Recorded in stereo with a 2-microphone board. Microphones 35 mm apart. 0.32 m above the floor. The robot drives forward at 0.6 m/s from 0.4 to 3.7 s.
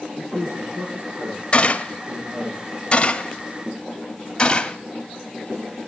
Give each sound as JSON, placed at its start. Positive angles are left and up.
{"t": 0.2, "sound": "a man speaking", "side_deg": -65, "distance_m": 8.5}
{"t": 1.5, "sound": "a gunshot", "side_deg": 35, "distance_m": 1.0}